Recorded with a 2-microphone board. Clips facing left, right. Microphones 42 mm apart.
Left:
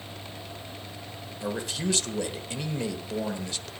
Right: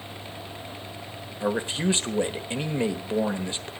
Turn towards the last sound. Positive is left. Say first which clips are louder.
# right 5 dB
turn(degrees=-30)  # may be behind; listen again after turning